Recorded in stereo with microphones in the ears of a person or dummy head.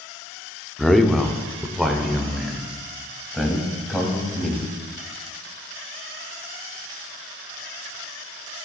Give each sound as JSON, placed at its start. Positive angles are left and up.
{"t": 0.8, "sound": "a man speaking", "side_deg": 0, "distance_m": 0.6}